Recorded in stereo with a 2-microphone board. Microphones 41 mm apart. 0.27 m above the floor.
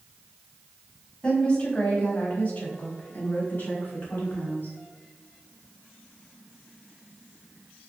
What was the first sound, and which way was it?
A woman speaking, 25° left (ahead or behind).